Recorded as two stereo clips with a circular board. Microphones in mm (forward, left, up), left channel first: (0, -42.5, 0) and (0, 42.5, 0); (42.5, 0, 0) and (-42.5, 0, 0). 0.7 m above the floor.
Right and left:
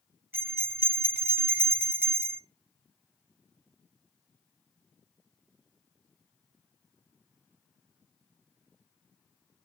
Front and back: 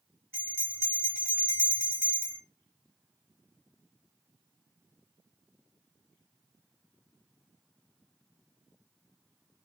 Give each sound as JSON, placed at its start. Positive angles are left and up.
{"t": 0.3, "sound": "a bell", "azimuth_deg": 140, "distance_m": 1.2}